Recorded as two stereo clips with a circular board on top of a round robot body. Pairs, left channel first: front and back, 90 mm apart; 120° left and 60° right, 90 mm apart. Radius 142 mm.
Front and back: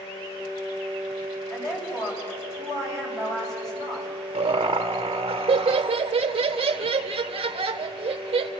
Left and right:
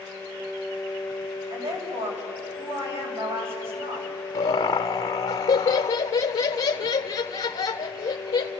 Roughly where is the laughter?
Behind left.